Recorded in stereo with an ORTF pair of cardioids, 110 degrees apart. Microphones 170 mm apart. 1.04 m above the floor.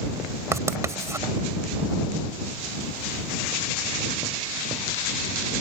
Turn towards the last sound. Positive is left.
turn(degrees=-20)